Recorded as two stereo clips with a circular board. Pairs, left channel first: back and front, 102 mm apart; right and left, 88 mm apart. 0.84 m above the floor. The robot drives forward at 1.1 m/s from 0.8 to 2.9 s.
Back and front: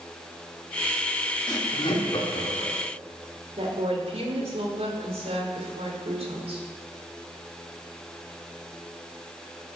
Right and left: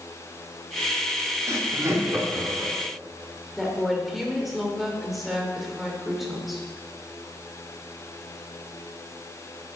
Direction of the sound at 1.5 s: 135° left.